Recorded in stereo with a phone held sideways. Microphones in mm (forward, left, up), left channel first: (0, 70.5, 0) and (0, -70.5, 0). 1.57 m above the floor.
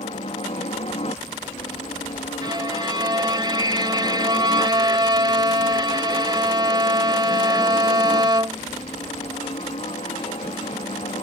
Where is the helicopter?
50° left (ahead or behind).